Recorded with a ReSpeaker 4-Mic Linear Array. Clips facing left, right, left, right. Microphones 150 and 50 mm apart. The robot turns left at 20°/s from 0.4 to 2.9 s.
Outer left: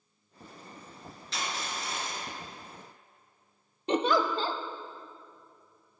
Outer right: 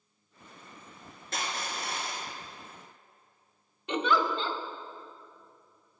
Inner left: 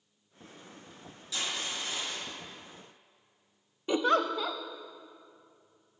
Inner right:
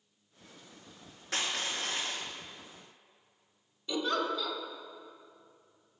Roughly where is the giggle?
Left.